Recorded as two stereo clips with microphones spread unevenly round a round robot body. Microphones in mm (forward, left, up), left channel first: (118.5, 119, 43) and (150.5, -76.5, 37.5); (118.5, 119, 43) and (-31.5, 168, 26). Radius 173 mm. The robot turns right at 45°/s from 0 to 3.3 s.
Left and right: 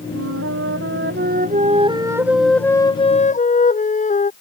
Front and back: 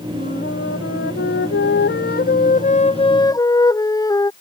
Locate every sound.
0.1 s a flute: 95° right; by 4.3 s 50° left